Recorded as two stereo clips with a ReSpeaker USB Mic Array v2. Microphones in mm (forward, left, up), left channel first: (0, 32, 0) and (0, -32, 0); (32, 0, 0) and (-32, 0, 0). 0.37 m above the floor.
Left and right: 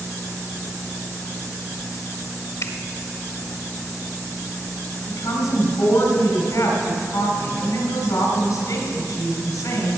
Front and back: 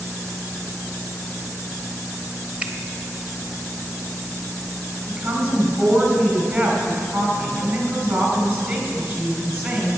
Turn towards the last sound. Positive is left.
turn(degrees=125)